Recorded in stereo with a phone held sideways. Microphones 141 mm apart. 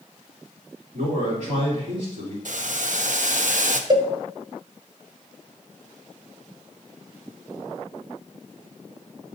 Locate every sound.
0.9 s a man speaking: 65° right (ahead or behind), 2.5 m
2.5 s boiling: 65° right (ahead or behind), 0.7 m
3.9 s a cowbell: 30° right (ahead or behind), 0.6 m